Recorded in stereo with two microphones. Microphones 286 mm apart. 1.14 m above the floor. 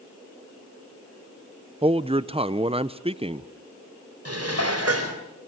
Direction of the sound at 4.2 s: 55° right (ahead or behind).